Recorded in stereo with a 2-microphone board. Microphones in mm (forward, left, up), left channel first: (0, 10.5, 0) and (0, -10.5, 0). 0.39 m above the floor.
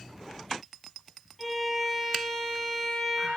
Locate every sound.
1.4 s a violin: centre (ahead or behind), 7 m